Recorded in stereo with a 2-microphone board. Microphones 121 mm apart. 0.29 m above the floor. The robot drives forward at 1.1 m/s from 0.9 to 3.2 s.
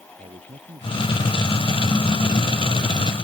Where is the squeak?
No squeak in this recording.